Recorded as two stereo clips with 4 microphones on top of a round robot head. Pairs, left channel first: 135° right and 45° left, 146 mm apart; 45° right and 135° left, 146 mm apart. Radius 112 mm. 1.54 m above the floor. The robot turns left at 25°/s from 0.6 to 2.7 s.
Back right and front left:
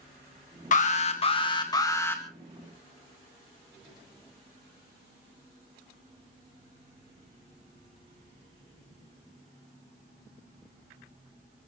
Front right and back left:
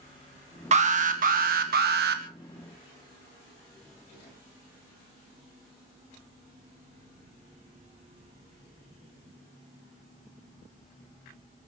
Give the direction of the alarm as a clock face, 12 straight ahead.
6 o'clock.